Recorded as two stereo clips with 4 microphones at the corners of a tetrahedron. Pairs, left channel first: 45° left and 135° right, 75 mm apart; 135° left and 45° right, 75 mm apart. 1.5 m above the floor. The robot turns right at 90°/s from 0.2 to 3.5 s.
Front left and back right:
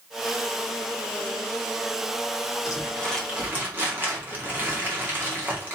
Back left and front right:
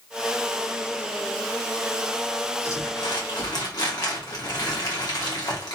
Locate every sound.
2.6 s crumpling: 85° left, 1.9 m; by 5.7 s 165° left, 1.9 m